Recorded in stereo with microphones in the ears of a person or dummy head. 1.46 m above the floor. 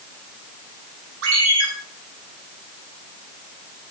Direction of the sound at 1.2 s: 75° right (ahead or behind).